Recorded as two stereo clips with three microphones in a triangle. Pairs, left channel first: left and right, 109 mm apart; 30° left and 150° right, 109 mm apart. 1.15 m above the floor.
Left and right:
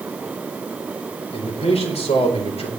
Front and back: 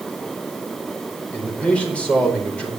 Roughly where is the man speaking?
Left.